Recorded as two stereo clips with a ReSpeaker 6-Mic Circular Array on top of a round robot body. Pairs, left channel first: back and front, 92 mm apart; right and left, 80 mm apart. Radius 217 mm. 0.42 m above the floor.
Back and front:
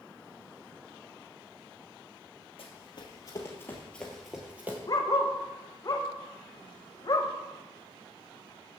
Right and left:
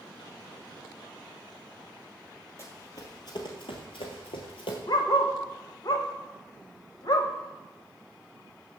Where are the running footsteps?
145° right, 1.1 m; by 4.8 s 70° right, 1.0 m.